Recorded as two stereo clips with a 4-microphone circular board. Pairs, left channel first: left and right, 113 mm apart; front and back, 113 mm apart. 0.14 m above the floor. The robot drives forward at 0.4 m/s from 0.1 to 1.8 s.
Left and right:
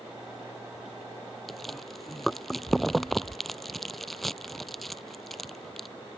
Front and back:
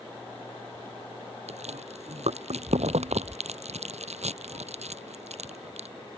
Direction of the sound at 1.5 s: Straight behind.